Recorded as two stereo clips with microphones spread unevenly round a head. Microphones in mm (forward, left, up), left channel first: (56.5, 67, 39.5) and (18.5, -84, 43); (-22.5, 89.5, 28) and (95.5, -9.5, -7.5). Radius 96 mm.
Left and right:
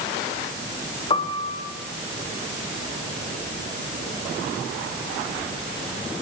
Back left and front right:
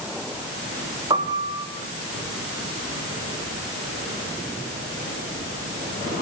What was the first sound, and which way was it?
A piano, 20° left.